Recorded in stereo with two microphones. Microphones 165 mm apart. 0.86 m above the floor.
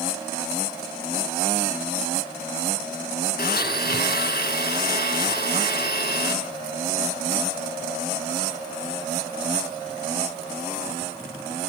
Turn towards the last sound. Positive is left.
turn(degrees=70)  # may be behind; listen again after turning